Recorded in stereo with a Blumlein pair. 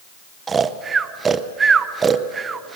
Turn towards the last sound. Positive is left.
turn(degrees=-15)